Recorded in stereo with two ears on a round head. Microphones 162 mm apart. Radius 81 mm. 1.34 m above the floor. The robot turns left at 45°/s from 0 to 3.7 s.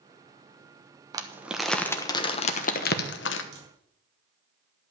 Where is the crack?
60° right (ahead or behind), 4 m; by 3.7 s 55° right (ahead or behind), 4 m.